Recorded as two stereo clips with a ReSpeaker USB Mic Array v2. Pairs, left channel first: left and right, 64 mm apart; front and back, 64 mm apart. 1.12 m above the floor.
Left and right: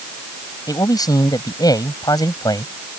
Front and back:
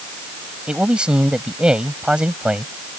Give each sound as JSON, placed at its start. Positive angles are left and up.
{"t": 0.7, "sound": "a man speaking", "azimuth_deg": 105}